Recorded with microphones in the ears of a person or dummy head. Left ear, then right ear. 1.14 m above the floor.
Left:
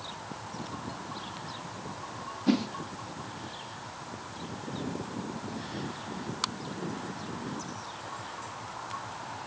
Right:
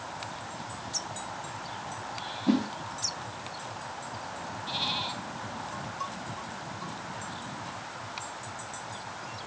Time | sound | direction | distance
2.5 | a whoosh | 30° left (ahead or behind) | 1.3 m